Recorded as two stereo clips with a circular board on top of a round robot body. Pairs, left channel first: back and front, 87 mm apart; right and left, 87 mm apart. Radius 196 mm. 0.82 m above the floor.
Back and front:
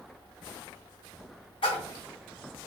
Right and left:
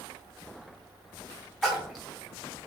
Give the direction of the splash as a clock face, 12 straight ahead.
6 o'clock.